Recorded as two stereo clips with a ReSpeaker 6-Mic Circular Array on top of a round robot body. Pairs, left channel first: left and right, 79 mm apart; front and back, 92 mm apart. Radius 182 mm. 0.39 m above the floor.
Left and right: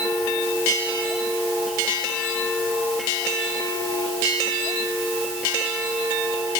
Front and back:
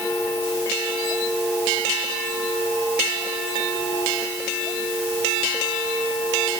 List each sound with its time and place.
Only background noise.